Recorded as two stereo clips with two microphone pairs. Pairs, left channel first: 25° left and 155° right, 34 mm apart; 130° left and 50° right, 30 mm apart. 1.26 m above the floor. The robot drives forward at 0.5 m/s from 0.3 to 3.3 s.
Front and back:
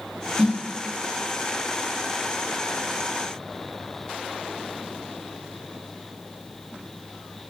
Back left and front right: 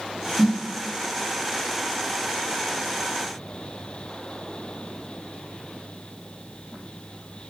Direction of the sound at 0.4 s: 120° right.